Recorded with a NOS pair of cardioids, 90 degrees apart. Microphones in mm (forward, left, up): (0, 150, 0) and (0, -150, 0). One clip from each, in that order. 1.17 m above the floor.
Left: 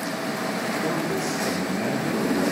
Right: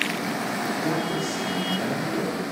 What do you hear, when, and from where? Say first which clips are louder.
0.8 s a man speaking: even; 25° left, 3.5 m